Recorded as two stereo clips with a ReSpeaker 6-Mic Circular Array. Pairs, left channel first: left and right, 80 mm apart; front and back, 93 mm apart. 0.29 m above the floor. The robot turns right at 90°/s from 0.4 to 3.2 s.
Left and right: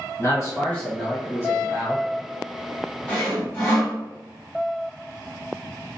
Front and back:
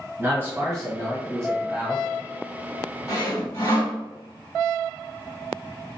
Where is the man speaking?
120° left, 1.9 m; by 2.0 s 90° right, 1.9 m.